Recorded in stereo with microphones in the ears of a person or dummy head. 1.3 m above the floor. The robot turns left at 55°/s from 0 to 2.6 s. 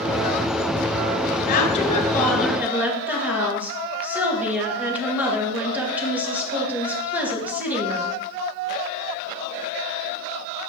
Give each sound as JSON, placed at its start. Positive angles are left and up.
{"t": 1.5, "sound": "a woman speaking", "azimuth_deg": 50, "distance_m": 1.7}